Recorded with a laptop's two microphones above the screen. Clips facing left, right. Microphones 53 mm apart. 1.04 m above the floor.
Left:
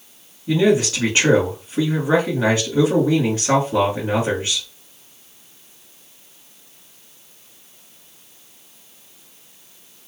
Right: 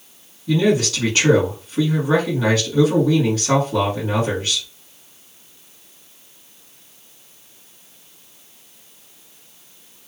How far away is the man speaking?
About 1.9 m.